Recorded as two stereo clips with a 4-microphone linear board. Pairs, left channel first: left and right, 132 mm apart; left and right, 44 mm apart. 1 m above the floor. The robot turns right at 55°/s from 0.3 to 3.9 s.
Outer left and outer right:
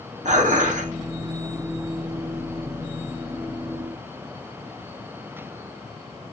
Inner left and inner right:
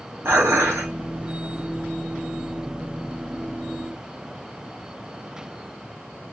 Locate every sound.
0.2 s dishes clattering: 105° right, 0.8 m; by 0.9 s 75° right, 0.8 m